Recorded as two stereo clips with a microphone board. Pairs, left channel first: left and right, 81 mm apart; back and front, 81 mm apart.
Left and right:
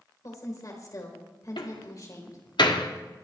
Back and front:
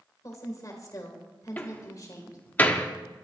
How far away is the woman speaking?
About 4 m.